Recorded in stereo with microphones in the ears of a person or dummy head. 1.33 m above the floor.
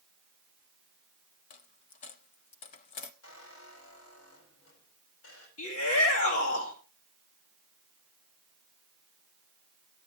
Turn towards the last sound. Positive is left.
turn(degrees=70)  # may be behind; listen again after turning